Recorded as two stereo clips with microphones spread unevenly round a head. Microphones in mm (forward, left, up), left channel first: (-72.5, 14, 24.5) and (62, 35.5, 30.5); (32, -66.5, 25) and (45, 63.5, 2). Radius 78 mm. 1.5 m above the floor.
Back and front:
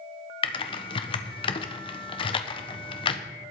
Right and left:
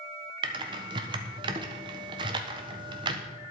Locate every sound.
0.4 s typing on a keyboard: 140° left, 1.3 m